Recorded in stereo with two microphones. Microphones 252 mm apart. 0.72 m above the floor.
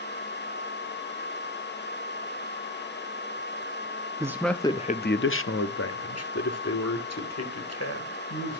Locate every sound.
4.2 s a man speaking: 15° right (ahead or behind), 0.7 m; by 8.6 s 75° left (ahead or behind), 3 m